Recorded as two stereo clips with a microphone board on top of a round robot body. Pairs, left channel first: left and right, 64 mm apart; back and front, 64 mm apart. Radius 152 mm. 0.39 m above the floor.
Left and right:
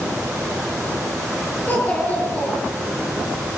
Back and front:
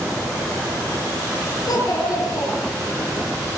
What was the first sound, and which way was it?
A child speaking, 155° left.